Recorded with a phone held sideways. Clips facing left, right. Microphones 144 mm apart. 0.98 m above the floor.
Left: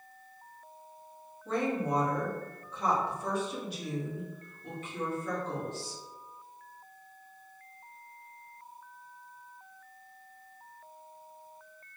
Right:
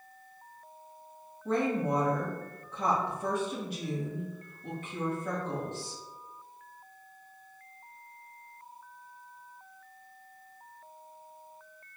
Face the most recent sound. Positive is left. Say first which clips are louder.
# right 2 dB
turn(degrees=-55)  # may be behind; listen again after turning